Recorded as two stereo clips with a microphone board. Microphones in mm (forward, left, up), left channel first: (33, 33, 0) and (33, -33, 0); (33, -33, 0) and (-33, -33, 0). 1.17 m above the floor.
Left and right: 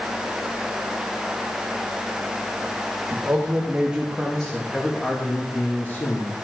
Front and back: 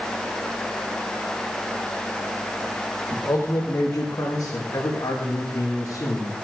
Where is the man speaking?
40° right, 2 m; by 6.4 s 40° left, 2.5 m.